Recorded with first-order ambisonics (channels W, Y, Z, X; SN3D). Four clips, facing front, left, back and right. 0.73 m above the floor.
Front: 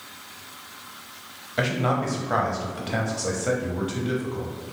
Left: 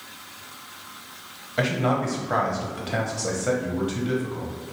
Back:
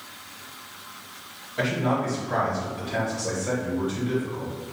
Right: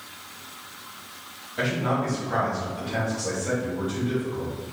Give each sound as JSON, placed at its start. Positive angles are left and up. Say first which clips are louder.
{"t": 1.6, "sound": "a man speaking", "louder": "left 2 dB, front 1 dB", "azimuth_deg": 35, "distance_m": 0.8}